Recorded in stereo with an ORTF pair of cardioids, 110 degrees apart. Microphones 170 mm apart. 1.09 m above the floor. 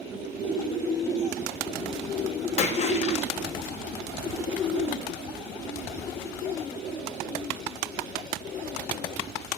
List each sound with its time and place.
2.6 s a splash: 40° left, 0.8 m